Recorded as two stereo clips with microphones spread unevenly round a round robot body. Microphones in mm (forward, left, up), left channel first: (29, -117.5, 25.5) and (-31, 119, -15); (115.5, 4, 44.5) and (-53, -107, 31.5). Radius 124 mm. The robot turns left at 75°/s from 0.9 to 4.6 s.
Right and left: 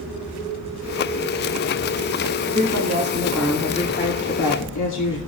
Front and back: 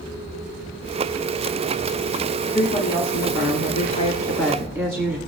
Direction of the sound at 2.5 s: 100° left.